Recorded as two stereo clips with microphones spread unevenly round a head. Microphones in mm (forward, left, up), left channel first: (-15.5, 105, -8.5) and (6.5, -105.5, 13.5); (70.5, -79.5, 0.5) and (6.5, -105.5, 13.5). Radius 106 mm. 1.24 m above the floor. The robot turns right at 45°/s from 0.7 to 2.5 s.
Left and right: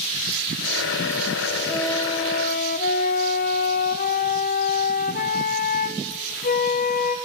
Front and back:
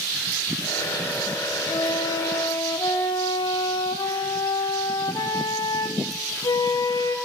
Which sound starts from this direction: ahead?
A flute, at 1.7 s.